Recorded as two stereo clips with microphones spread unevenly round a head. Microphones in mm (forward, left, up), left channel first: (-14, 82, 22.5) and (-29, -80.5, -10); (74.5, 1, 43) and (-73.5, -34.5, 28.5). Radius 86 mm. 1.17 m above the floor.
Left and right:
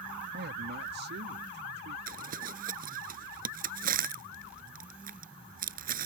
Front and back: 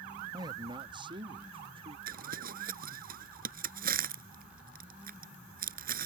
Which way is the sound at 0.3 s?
105° right.